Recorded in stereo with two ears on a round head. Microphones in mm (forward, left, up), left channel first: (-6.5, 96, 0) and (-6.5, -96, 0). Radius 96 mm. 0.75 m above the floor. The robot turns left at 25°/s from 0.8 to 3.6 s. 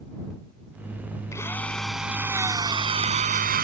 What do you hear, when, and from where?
1.3 s a drill: 15° left; by 3.6 s 45° right